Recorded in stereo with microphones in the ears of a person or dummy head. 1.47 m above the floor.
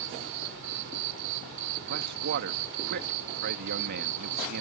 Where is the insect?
65° right (ahead or behind).